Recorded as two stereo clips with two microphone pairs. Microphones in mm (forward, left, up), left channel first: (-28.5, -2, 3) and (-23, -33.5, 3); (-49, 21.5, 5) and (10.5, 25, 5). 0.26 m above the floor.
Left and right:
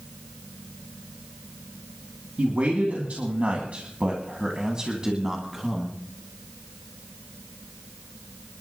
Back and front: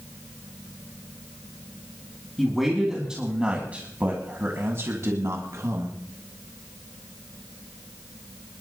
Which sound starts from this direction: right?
A man speaking, at 2.4 s.